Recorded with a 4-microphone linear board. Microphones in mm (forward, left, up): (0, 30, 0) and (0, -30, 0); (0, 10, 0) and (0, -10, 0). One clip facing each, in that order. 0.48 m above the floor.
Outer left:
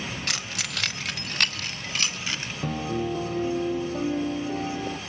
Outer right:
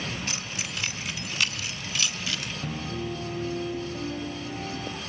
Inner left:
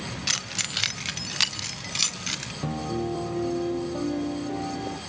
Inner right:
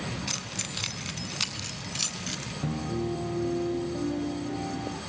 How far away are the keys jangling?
About 1.3 m.